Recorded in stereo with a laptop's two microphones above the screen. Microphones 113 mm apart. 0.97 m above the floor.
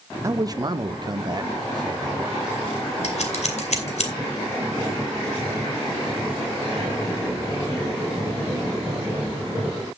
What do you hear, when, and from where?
0.2 s a man speaking: 25° right (ahead or behind), 0.6 m; by 2.4 s 35° right (ahead or behind), 2.5 m
3.0 s scissors: 75° left (ahead or behind), 2.5 m